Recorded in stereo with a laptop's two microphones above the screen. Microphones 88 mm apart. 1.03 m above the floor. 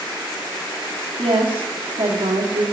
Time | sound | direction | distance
1.2 | a woman speaking | 75° right (ahead or behind) | 1.8 m